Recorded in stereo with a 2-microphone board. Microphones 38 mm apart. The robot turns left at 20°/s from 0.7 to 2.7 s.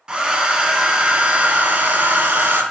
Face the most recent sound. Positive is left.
turn(degrees=-55)